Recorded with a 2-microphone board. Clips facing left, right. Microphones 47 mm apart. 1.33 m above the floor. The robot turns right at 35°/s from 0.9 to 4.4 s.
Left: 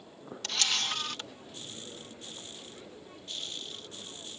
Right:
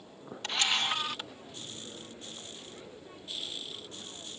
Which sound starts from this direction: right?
A camera shutter, at 0.4 s.